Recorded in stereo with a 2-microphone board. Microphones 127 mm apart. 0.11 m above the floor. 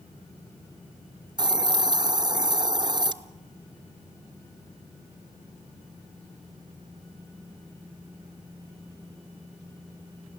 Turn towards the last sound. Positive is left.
turn(degrees=-35)  # may be behind; listen again after turning